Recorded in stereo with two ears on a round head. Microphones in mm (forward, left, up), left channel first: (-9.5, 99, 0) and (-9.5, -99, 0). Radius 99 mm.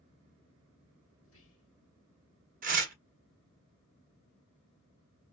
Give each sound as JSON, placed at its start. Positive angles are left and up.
{"t": 1.2, "sound": "whispering", "side_deg": 65, "distance_m": 1.4}
{"t": 2.6, "sound": "tearing paper", "side_deg": -40, "distance_m": 0.9}